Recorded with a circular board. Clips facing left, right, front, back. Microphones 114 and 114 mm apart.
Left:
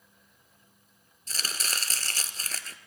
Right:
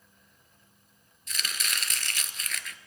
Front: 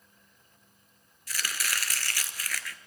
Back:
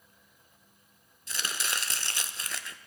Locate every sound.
1.3 s chopping: 125° left, 0.7 m